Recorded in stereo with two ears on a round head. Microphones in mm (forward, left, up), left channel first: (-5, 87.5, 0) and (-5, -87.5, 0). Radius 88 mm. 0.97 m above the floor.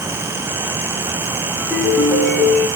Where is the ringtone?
10° left (ahead or behind), 8.5 m.